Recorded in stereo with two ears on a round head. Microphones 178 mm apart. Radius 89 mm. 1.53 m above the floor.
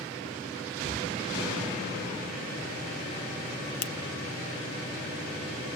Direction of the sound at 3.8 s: 60° left (ahead or behind).